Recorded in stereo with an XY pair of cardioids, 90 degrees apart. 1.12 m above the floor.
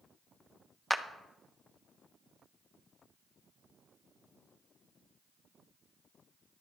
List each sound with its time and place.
0.9 s a clap: 5° left, 1.1 m